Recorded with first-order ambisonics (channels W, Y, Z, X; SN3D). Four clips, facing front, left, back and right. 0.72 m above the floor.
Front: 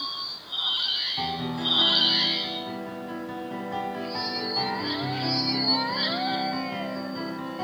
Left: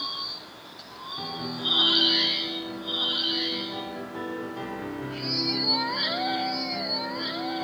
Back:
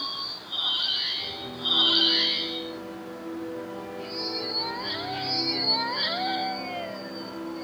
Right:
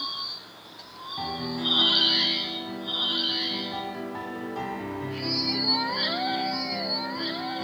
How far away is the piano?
About 3.5 m.